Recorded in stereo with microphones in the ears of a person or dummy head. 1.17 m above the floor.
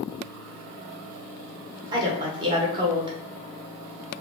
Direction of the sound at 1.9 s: 15° right (ahead or behind).